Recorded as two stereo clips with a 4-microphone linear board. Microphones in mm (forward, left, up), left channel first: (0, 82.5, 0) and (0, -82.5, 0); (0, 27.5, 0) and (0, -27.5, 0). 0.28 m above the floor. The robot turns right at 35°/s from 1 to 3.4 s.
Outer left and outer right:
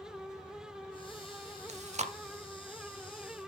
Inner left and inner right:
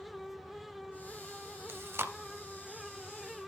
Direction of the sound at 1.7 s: 45° right (ahead or behind).